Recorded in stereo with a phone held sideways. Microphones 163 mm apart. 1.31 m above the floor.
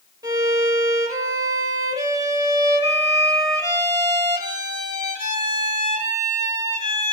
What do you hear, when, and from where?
0.2 s a violin: 25° right (ahead or behind), 1.5 m